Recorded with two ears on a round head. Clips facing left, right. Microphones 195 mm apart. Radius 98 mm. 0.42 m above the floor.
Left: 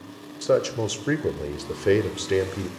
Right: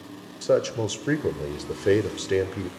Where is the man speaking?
Centre (ahead or behind), 0.8 m.